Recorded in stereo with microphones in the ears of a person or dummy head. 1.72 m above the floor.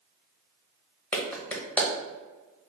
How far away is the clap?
About 0.7 m.